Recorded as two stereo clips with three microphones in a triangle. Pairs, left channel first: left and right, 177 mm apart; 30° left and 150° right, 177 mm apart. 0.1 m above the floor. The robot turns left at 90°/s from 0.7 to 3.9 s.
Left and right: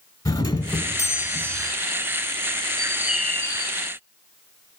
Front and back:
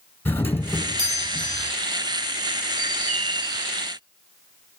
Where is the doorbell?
80° left, 1.5 m; by 1.7 s 10° right, 1.5 m.